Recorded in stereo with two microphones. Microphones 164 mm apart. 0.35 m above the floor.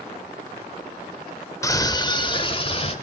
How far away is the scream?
About 0.8 m.